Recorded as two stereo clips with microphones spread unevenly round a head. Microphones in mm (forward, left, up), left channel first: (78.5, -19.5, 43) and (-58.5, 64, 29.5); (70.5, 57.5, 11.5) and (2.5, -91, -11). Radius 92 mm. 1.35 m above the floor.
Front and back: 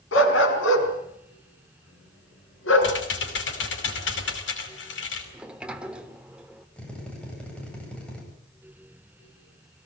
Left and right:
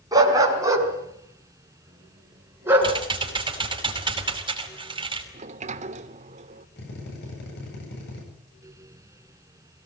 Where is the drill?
50° left, 9 m.